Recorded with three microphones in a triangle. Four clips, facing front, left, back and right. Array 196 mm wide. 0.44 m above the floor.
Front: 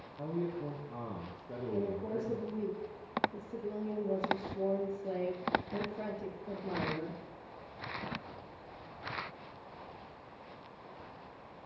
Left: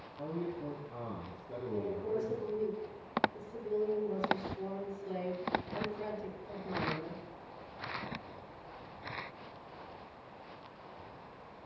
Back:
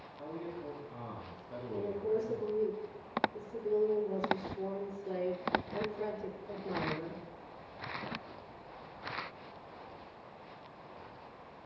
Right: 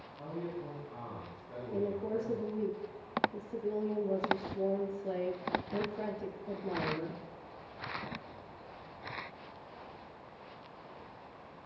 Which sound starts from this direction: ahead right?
A woman speaking, at 1.7 s.